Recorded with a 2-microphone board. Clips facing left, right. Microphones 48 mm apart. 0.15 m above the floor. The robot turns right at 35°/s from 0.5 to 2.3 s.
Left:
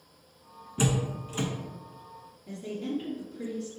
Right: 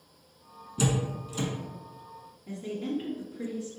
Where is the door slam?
35° left (ahead or behind), 0.9 m; by 1.5 s 40° left (ahead or behind), 0.9 m.